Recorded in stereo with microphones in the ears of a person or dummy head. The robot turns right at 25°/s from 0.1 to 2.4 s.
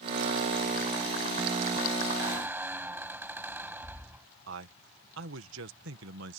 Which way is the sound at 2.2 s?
15° right (ahead or behind).